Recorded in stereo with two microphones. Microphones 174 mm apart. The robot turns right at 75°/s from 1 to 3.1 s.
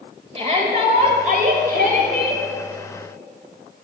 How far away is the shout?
About 1.8 m.